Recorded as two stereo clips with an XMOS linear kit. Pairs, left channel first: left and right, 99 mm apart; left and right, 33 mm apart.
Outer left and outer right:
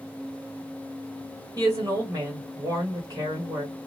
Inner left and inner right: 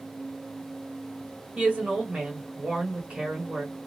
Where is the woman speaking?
35° right (ahead or behind), 1.3 m.